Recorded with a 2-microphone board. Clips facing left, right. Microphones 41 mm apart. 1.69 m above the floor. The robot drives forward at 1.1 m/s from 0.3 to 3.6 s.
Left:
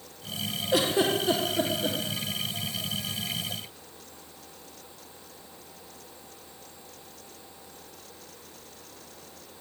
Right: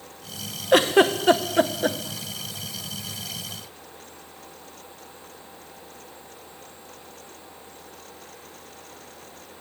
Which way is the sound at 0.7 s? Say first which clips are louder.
Right 7 dB; 60° right (ahead or behind).